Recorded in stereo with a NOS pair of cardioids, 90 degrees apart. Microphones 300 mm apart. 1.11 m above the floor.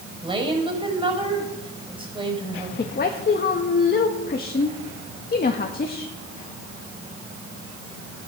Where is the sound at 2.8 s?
35° left, 1.6 m.